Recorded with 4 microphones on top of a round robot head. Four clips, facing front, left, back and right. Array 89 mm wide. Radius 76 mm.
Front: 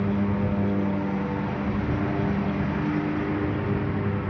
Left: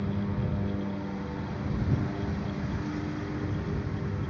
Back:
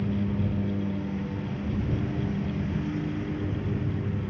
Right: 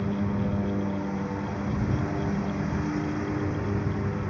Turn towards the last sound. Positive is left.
turn(degrees=-20)